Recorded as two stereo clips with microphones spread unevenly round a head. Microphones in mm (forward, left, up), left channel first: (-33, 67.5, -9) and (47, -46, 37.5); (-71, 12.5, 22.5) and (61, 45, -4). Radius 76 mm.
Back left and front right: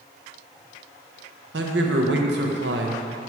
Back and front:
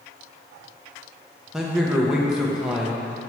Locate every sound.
1.5 s a man speaking: 70° right, 1.2 m